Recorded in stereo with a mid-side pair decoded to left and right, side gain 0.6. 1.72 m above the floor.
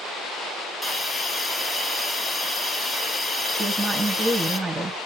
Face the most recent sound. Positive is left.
turn(degrees=-20)